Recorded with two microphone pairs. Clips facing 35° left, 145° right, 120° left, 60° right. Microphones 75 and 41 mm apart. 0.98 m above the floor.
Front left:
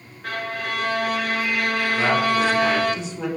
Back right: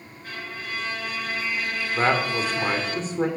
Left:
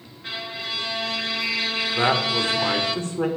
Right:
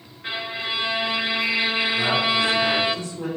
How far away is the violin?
About 0.7 m.